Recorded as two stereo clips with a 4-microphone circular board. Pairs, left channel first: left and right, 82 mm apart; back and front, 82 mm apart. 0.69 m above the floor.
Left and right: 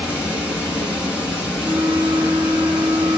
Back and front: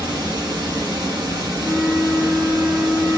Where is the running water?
15° right, 1.4 m.